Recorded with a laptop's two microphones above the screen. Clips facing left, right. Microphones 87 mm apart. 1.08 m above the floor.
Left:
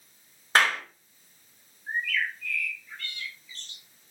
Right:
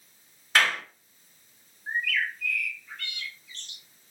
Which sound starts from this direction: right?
A bird, at 1.9 s.